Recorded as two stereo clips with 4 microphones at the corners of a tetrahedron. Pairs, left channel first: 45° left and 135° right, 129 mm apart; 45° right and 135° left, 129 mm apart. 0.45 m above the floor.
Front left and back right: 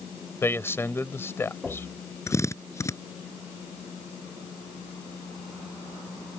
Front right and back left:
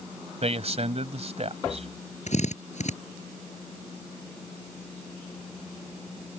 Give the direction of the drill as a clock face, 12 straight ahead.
1 o'clock.